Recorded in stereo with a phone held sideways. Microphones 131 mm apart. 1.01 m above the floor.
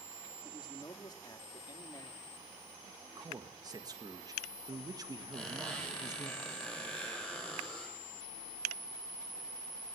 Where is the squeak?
5° left (ahead or behind), 6 m.